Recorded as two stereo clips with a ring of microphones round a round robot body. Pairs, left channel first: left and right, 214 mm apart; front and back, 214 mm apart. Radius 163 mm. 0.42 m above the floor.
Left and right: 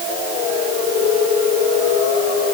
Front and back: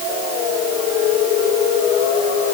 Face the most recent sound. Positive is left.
No sound to turn to.